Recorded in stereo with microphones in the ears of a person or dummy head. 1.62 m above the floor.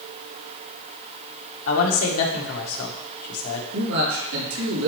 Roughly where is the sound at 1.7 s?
Left.